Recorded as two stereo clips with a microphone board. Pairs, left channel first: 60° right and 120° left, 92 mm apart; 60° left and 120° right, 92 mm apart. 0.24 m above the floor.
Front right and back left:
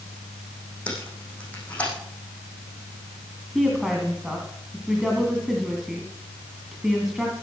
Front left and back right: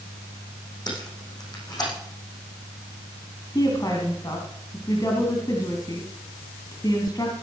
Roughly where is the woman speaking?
Ahead left.